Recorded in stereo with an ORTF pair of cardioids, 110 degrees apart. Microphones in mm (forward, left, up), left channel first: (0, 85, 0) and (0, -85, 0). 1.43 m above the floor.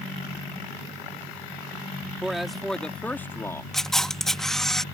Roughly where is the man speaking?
Ahead.